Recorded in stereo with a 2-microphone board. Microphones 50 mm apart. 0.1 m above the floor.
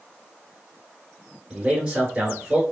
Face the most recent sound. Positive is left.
turn(degrees=-20)  # may be behind; listen again after turning